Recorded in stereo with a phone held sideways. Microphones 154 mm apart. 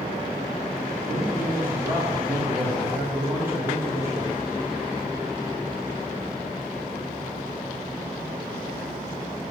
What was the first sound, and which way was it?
A man speaking, 15° right (ahead or behind).